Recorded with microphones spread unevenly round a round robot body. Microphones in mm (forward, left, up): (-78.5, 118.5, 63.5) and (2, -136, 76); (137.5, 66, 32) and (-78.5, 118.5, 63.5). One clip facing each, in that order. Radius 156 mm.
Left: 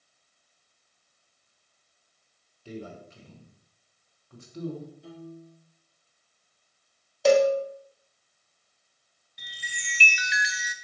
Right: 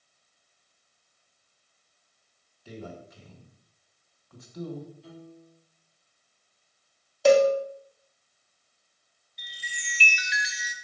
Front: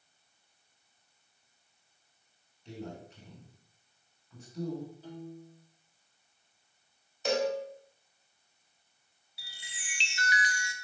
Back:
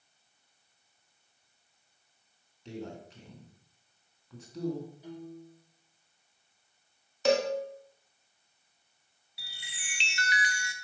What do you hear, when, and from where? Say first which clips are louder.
2.6 s a man speaking: left 2 dB, back 2 dB; 165° left, 2.0 m
5.0 s a piano: left 4 dB, back 1 dB; 90° left, 4 m
7.2 s a cowbell: right 1 dB, back 3 dB; 160° right, 0.7 m
9.4 s a chime: left 1 dB, back 1 dB; 145° left, 0.6 m